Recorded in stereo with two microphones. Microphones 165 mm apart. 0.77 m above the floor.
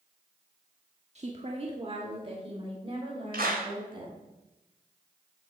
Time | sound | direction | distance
1.1 | a woman speaking | 45° right (ahead or behind) | 1.5 m
3.3 | a clap | 75° right (ahead or behind) | 3.5 m